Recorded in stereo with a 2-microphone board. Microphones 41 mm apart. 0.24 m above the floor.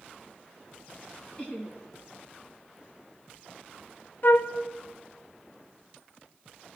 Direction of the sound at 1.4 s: 30° left (ahead or behind).